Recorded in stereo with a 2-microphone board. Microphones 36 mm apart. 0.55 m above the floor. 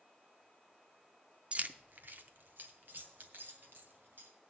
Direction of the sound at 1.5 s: 35° right (ahead or behind).